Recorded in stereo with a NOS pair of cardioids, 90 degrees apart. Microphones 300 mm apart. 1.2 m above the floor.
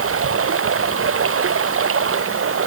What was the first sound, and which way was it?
Running water, 40° right.